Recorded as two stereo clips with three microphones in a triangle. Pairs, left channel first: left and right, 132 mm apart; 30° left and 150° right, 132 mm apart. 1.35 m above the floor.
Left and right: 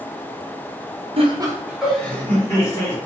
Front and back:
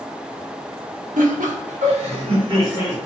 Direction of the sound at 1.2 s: 135° right.